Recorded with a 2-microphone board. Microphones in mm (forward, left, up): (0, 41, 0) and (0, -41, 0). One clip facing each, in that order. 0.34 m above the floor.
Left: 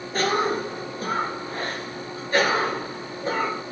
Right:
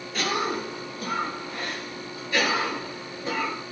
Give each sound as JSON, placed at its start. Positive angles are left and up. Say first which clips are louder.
{"t": 0.1, "sound": "a cough", "louder": "left 4 dB", "side_deg": 35, "distance_m": 1.3}